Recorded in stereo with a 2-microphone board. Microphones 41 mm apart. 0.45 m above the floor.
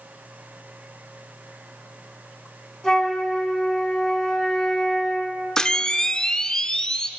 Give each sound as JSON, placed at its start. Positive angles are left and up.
{"t": 2.8, "sound": "a flute", "side_deg": 10, "distance_m": 2.5}
{"t": 5.6, "sound": "a camera shutter", "side_deg": 15, "distance_m": 0.8}